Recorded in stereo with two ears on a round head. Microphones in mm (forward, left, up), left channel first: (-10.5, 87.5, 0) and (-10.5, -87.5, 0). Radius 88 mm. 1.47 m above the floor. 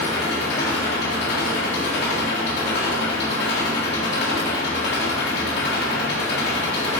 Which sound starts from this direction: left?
An engine running, at 0.0 s.